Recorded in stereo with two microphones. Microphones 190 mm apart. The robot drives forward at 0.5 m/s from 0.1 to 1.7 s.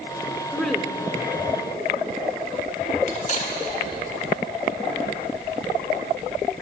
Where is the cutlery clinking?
40° left (ahead or behind), 1.5 m.